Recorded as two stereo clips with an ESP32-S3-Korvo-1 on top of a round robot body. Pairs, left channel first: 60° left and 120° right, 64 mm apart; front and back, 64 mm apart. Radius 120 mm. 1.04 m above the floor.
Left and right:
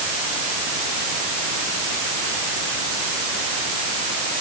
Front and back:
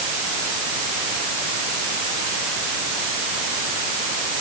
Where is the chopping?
I don't hear chopping.